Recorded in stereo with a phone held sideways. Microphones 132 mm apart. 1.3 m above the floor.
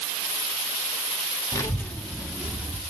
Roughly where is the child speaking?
Left.